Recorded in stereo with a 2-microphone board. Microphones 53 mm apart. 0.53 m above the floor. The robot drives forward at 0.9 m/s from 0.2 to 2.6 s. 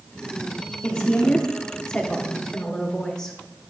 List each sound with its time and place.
0.8 s a woman speaking: 15° left (ahead or behind), 1.0 m; by 3.4 s 10° left (ahead or behind), 1.5 m